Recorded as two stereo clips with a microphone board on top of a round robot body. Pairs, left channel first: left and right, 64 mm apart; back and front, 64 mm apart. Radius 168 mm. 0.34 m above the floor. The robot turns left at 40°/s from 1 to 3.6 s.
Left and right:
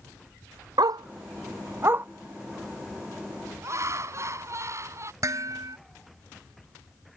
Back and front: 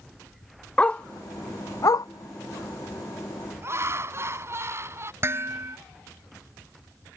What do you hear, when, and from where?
0.8 s a dog barking: 110° right; by 2.1 s 150° right
3.6 s laughter: 50° right
5.2 s dishes clattering: 50° right